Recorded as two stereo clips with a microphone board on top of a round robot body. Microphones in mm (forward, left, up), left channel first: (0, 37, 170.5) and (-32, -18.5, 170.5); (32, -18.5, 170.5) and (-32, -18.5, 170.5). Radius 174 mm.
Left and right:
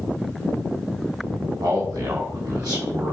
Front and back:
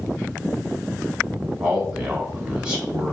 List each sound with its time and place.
1.6 s a man speaking: 105° right, 4.5 m